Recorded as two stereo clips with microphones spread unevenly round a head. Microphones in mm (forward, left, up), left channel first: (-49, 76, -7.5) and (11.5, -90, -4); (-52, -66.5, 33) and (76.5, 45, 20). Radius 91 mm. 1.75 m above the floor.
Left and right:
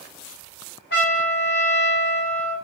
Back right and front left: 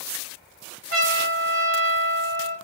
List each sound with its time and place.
0.9 s a trumpet: 85° left, 3 m